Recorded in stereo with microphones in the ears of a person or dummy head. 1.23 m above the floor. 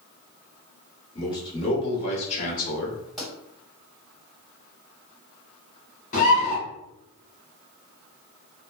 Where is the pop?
5° left (ahead or behind), 1.9 m.